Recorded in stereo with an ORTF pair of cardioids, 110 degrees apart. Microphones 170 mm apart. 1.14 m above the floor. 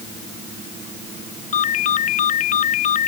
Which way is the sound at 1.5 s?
50° left.